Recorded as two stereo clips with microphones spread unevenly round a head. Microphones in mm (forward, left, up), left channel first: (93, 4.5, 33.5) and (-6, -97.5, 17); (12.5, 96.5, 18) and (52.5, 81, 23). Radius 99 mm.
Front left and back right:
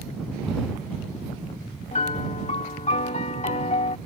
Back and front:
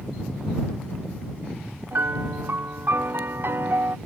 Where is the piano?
5° left.